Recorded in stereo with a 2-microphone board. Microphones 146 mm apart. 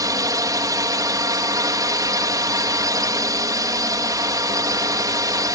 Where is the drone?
25° right (ahead or behind).